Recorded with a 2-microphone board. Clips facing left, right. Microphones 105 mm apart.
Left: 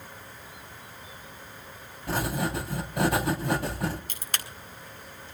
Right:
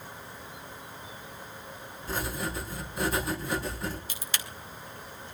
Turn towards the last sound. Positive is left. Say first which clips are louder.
# left 1 dB
turn(degrees=50)  # may be behind; listen again after turning